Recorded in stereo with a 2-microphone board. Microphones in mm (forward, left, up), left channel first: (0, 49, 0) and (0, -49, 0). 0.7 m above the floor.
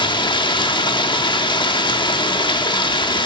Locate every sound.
0.0 s running water: 55° left (ahead or behind), 1.1 m